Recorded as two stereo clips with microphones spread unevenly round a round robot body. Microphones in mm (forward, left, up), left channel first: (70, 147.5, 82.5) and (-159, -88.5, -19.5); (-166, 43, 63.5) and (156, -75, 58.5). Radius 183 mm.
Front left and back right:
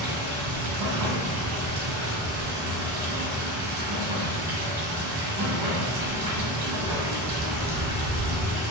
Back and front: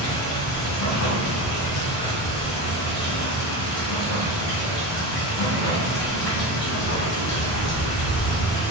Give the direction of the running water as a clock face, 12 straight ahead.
5 o'clock.